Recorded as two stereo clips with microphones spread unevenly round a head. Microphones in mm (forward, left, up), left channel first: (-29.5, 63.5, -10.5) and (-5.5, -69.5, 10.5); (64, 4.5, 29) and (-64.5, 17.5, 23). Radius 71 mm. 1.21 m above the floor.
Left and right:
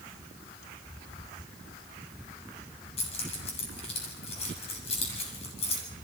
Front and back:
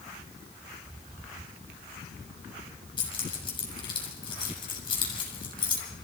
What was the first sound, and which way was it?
Keys jangling, 50° left.